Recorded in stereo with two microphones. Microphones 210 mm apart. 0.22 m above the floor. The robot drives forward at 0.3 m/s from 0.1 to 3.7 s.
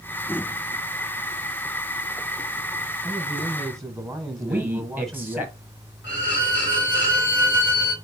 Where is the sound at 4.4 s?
10° right (ahead or behind), 1.4 m.